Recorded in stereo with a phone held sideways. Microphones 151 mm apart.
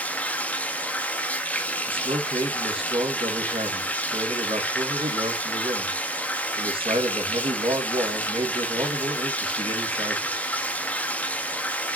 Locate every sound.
0.0 s running water: 10° left (ahead or behind), 1.0 m
1.9 s a man speaking: 40° right (ahead or behind), 1.9 m